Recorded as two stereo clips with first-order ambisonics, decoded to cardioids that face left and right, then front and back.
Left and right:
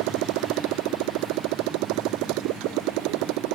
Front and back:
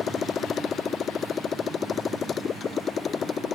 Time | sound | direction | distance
0.0 | a motorcycle | 70° right | ?